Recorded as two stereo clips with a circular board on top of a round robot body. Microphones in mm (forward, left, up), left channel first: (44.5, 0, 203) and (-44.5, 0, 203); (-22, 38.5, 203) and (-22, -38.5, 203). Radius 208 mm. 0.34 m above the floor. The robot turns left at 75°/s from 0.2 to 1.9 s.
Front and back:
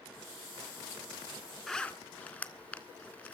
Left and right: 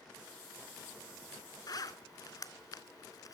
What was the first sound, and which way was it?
A zipper, 85° left.